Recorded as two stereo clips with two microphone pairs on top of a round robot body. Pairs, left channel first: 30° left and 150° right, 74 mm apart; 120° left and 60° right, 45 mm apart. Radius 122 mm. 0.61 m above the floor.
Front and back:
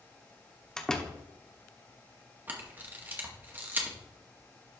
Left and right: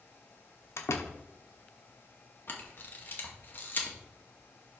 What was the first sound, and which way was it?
A door slam, 115° left.